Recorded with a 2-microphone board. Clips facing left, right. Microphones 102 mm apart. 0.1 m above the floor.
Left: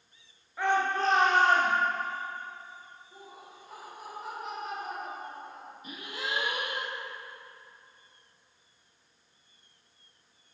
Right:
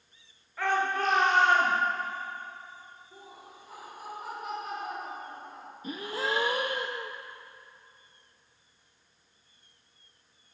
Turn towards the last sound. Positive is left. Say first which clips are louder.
# right 6 dB
turn(degrees=-35)  # may be behind; listen again after turning